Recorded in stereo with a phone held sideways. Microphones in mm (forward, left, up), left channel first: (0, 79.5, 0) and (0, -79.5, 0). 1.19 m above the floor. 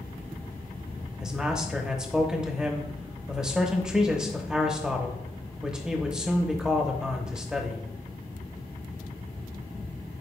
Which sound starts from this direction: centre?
A man speaking, at 1.2 s.